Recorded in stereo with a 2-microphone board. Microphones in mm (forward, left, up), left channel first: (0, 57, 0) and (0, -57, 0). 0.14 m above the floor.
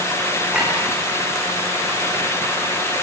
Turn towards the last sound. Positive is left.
turn(degrees=-10)  # may be behind; listen again after turning